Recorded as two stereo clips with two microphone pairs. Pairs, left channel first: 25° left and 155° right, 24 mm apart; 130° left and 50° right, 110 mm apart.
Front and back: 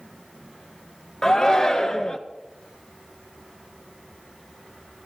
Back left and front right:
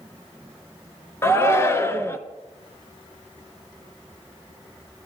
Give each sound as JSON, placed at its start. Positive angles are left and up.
{"t": 1.2, "sound": "a shout", "azimuth_deg": 85, "distance_m": 1.4}